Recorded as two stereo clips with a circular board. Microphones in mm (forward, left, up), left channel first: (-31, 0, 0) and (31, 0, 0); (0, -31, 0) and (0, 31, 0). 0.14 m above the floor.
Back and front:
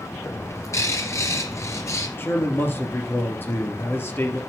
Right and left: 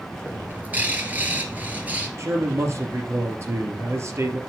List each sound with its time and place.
0.2 s a bird: 150° left, 2.5 m
2.2 s a man speaking: 130° left, 2.5 m